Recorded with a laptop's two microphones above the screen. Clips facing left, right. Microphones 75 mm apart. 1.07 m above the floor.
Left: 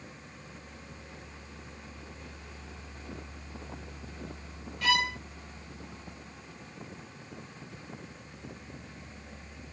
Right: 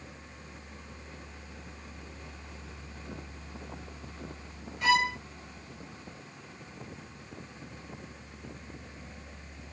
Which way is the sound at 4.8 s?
20° right (ahead or behind).